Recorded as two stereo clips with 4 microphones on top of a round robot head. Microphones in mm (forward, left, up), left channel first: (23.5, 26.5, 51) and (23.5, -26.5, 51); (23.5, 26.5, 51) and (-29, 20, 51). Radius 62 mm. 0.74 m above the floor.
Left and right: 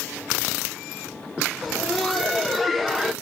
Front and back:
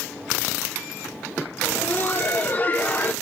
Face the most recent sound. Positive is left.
turn(degrees=0)